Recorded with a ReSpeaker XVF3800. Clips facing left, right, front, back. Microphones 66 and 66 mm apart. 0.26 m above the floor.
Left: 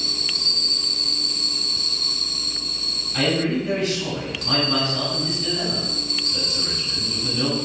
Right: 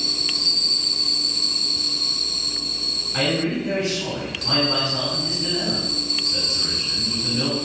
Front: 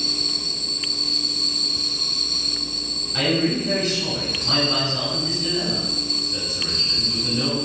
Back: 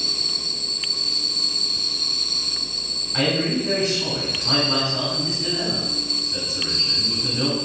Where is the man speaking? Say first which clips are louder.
Left 1 dB, front 1 dB; 135° right, 1.5 m.